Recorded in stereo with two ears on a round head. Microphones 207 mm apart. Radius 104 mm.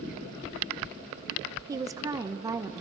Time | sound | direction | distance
1.7 | a woman speaking | 15° right (ahead or behind) | 0.5 m